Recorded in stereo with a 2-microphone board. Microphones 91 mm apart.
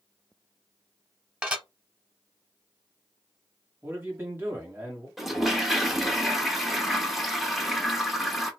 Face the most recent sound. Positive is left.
turn(degrees=0)  # may be behind; listen again after turning